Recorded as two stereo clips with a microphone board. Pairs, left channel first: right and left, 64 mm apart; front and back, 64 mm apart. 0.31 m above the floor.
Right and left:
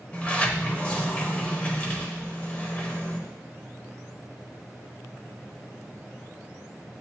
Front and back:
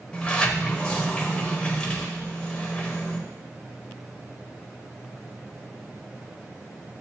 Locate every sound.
0.1 s a sliding door: 50° right, 0.7 m